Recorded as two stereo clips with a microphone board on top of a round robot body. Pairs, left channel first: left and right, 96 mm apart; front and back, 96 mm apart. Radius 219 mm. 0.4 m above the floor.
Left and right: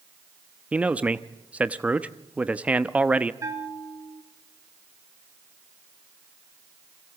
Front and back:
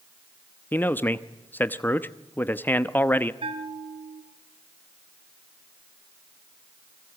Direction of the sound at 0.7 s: 35° right.